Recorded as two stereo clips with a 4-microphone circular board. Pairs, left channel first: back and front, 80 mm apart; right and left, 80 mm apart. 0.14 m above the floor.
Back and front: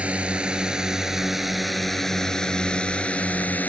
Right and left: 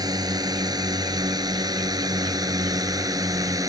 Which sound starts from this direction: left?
A drone, at 0.0 s.